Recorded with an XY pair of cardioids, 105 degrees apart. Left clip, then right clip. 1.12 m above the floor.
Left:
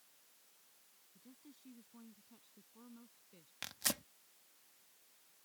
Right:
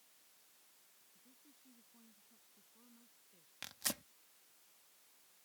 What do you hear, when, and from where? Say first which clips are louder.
1.1 s a woman speaking: left 9 dB; 55° left
3.6 s tearing paper: left 3 dB; 20° left